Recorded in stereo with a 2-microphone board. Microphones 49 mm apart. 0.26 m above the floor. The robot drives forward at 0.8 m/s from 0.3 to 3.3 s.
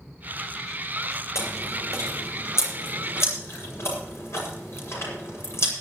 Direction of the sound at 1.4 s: 70° left (ahead or behind).